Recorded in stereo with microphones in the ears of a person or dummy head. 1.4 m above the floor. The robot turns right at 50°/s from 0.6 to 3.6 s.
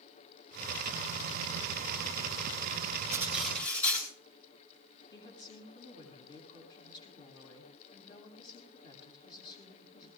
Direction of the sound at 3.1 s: 20° right (ahead or behind).